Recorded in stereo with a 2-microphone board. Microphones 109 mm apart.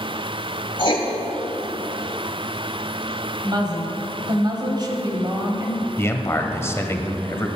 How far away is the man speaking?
About 1.1 m.